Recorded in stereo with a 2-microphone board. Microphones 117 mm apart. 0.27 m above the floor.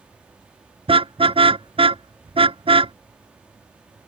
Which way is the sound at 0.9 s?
55° right (ahead or behind).